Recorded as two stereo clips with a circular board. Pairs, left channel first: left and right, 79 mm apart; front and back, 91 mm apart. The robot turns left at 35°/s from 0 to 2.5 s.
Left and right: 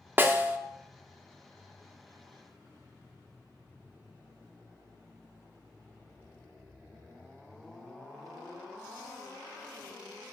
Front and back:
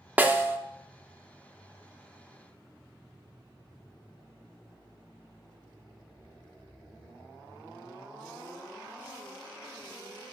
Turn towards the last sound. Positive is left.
turn(degrees=155)